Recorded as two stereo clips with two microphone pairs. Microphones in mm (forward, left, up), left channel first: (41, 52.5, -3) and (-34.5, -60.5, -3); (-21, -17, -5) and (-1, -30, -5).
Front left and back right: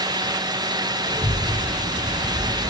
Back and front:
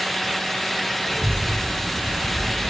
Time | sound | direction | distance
1.1 | a child speaking | 150° right | 3 m